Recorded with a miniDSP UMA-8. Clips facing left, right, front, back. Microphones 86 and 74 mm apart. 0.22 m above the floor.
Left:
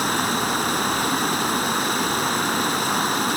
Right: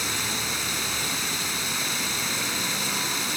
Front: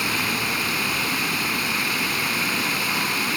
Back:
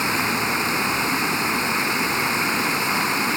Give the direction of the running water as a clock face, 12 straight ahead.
8 o'clock.